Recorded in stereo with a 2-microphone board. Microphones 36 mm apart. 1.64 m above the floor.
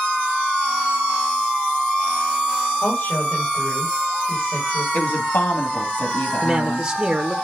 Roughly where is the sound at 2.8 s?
Left.